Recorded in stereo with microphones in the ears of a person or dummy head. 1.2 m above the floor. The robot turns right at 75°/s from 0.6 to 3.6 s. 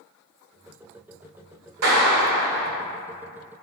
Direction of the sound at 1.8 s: 85° right.